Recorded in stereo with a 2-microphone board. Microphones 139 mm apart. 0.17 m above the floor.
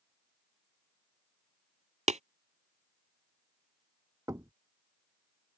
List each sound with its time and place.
2.1 s tapping: 55° right (ahead or behind)
4.3 s knocking: 25° right (ahead or behind)